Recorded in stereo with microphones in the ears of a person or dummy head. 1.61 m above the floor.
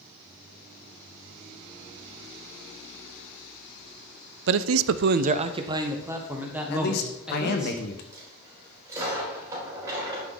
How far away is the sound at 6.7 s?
About 1.2 m.